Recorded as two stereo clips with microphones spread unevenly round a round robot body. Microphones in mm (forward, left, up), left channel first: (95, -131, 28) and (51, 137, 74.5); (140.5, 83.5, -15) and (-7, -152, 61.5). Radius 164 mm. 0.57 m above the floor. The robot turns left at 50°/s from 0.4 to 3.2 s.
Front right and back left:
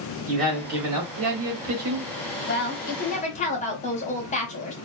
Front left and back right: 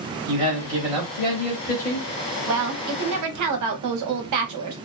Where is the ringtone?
I don't hear a ringtone.